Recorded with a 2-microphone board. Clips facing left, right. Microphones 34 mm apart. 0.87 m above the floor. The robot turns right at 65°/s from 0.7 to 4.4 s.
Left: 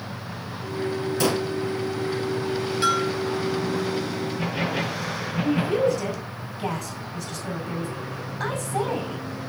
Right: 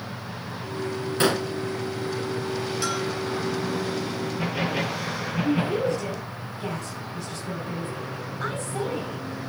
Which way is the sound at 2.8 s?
30° left (ahead or behind).